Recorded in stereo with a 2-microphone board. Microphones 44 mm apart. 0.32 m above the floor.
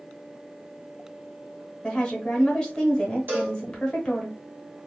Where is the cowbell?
55° right (ahead or behind), 1.8 m.